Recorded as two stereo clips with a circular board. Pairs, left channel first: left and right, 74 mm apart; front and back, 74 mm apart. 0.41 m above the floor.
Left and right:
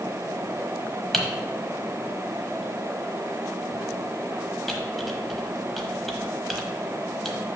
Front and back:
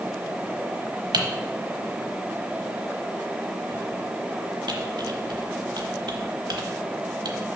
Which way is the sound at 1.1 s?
Straight behind.